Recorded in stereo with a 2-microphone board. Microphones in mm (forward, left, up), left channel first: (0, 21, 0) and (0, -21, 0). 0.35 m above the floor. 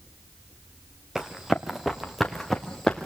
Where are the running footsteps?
10° right (ahead or behind), 3 m; by 3.1 s 10° left (ahead or behind), 3 m.